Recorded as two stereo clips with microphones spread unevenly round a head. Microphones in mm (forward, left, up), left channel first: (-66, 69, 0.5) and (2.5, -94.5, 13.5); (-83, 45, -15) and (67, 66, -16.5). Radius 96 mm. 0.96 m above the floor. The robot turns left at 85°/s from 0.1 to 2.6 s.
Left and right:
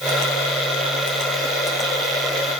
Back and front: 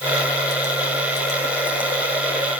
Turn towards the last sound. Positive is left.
No sound to turn to.